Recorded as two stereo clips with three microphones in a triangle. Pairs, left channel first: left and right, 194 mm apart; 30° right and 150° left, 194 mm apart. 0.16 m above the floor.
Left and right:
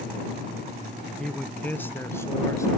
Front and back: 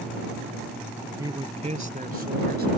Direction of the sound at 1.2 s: 170° left.